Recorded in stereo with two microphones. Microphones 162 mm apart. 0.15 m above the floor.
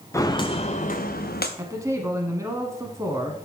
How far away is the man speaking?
About 1.0 m.